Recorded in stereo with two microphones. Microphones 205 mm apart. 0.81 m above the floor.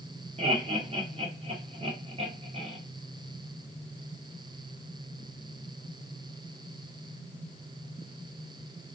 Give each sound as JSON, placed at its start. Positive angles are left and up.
{"t": 0.4, "sound": "laughter", "side_deg": -30, "distance_m": 0.9}